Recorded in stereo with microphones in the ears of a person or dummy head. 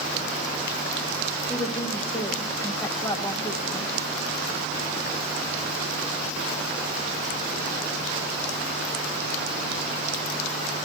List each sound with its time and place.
1.5 s a woman speaking: 25° left (ahead or behind), 2.5 m